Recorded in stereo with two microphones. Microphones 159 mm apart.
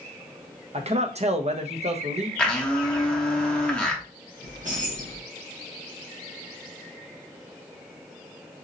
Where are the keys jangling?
55° right (ahead or behind), 1.3 m.